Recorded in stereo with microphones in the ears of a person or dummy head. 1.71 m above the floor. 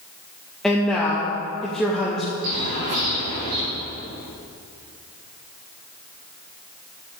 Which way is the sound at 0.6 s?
5° right (ahead or behind).